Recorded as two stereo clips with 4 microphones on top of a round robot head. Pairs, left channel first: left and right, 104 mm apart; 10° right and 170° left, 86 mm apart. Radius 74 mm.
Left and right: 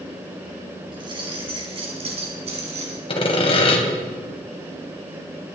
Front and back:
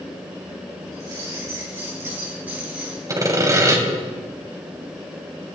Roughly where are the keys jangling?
Behind right.